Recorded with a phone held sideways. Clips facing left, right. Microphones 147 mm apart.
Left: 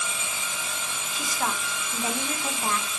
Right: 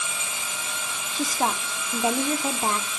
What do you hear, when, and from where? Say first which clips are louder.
1.1 s a woman speaking: right 5 dB; 30° right (ahead or behind), 0.9 m